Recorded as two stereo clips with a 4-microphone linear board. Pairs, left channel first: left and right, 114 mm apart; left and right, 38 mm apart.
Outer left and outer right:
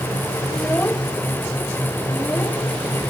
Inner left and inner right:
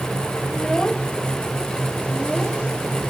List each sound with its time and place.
0.5 s a child speaking: 15° left (ahead or behind); by 2.6 s 20° left (ahead or behind)